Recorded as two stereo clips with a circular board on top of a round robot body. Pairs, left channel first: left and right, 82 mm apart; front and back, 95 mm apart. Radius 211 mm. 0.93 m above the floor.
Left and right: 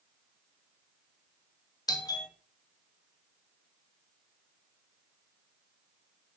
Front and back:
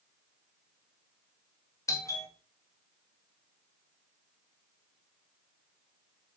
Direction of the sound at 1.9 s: 55° left.